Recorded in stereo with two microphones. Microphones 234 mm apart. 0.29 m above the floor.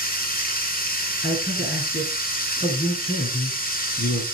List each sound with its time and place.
0.0 s running water: 40° left (ahead or behind), 2 m
1.2 s a man speaking: 45° left (ahead or behind), 3.5 m